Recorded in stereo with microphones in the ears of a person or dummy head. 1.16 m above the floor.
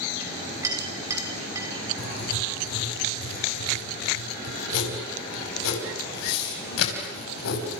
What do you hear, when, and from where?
0.2 s a clink: 15° right (ahead or behind), 6.5 m
2.0 s writing: 85° left, 5.5 m